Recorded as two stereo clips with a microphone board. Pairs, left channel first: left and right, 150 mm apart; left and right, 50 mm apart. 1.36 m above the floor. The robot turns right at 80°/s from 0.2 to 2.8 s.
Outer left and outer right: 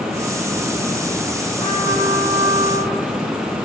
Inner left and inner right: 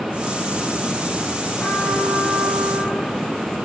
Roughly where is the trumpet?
Ahead left.